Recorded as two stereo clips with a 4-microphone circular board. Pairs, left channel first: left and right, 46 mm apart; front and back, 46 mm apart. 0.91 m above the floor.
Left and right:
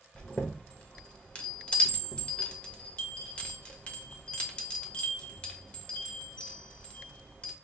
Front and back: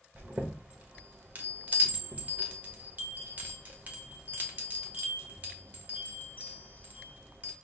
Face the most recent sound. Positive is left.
turn(degrees=140)